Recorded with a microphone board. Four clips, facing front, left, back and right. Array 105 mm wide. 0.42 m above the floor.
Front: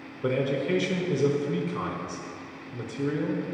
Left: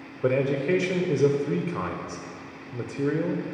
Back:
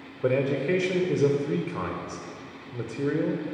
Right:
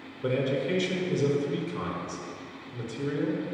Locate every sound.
0.2 s a man speaking: 125° left, 1.2 m